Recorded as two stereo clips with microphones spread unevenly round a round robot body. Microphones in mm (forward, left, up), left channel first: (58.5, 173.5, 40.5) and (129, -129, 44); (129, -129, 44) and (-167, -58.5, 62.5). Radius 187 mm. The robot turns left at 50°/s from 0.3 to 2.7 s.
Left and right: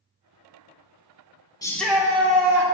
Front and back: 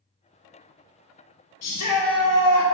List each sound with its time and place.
1.6 s a shout: 25° left, 1.6 m; by 2.6 s 25° right, 1.6 m